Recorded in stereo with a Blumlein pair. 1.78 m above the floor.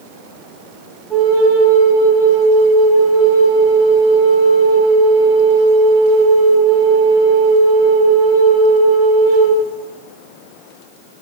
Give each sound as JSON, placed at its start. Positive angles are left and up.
{"t": 1.1, "sound": "a flute", "azimuth_deg": -15, "distance_m": 0.8}